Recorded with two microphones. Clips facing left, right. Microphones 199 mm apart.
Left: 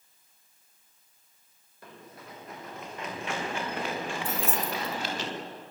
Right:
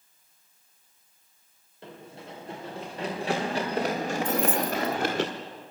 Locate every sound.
1.8 s running footsteps: 25° right (ahead or behind), 6.5 m; by 5.2 s 55° right (ahead or behind), 4.5 m
4.2 s keys jangling: 10° left (ahead or behind), 1.8 m